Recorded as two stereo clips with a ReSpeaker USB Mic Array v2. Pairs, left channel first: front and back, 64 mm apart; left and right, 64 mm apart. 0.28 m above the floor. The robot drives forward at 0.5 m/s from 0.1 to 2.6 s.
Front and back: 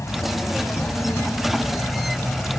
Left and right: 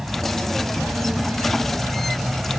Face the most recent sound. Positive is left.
turn(degrees=-20)